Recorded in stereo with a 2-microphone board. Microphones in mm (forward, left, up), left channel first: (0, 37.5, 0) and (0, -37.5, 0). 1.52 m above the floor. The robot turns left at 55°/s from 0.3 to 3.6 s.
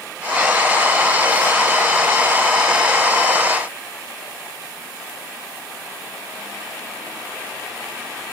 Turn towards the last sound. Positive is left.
No sound to turn to.